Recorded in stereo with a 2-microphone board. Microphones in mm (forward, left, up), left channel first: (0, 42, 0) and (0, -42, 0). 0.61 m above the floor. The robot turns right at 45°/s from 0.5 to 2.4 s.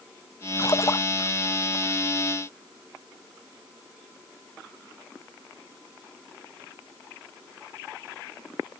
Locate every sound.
0.6 s a splash: 50° left (ahead or behind); by 1.1 s 30° left (ahead or behind)